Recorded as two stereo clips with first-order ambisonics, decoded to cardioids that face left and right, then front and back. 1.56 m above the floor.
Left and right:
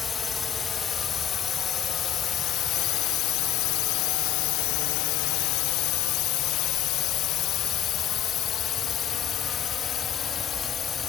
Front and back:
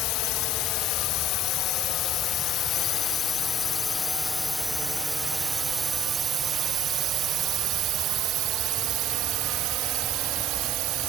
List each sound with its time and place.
0.0 s a drone: 25° left; by 11.1 s 150° left